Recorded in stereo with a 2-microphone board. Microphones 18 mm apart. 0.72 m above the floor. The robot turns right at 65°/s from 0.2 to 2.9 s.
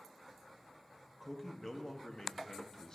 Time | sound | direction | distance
1.2 | a man speaking | straight ahead | 0.7 m